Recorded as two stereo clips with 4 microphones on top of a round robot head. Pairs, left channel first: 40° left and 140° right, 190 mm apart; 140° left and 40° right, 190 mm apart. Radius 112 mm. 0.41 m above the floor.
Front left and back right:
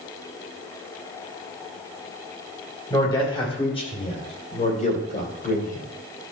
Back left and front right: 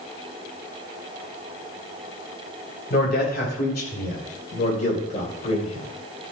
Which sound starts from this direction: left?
A man speaking, at 2.9 s.